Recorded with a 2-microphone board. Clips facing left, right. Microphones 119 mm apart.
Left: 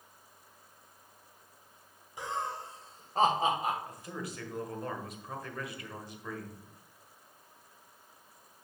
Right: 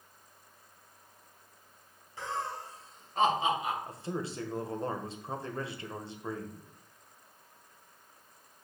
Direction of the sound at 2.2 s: 15° left (ahead or behind).